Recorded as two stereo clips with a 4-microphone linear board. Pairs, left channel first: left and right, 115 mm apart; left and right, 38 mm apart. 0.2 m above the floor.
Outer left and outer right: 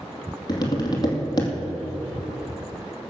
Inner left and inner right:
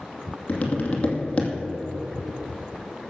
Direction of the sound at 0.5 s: 40° left (ahead or behind).